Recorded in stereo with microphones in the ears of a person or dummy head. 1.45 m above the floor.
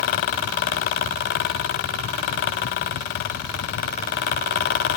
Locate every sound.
Only background noise.